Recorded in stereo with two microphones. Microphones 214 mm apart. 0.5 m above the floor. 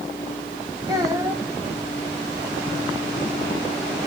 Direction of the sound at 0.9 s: 20° right (ahead or behind).